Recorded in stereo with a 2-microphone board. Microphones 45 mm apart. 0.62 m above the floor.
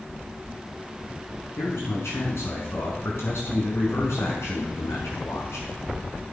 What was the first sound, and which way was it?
A man speaking, 85° left.